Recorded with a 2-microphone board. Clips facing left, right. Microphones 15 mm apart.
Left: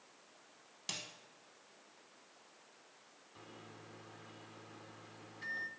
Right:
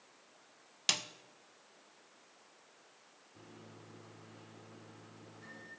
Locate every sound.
0.9 s a snare drum: 40° right (ahead or behind), 0.5 m
3.4 s a microwave: 40° left (ahead or behind), 1.4 m